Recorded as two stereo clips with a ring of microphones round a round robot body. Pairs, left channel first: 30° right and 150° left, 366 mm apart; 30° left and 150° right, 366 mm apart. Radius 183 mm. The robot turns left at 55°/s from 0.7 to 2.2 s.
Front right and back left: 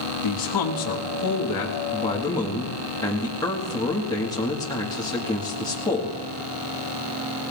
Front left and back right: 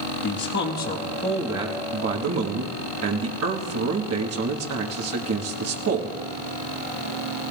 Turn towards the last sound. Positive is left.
turn(degrees=-110)